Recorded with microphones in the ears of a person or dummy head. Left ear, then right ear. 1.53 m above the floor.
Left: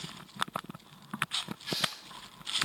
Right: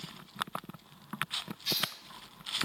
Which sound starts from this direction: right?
Tearing paper, at 1.6 s.